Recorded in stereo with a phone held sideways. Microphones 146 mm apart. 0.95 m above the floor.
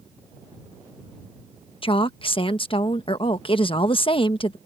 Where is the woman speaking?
35° left (ahead or behind).